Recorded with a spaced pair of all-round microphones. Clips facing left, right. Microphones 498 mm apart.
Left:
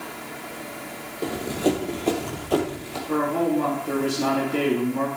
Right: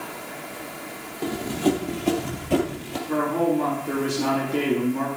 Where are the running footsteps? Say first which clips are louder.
Even; 10° right (ahead or behind), 2.5 m; by 3.0 s 55° right (ahead or behind), 2.5 m.